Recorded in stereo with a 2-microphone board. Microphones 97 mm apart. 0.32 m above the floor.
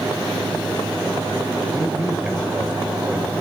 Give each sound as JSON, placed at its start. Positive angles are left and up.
{"t": 1.7, "sound": "a man speaking", "side_deg": -10, "distance_m": 1.6}